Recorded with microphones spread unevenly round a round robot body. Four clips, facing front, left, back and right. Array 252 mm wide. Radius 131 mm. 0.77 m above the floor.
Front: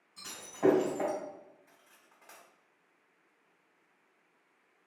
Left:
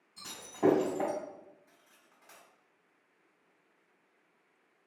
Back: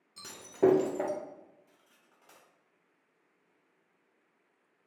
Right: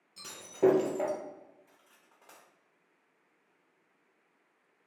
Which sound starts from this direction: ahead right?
Cutlery clinking, at 1.7 s.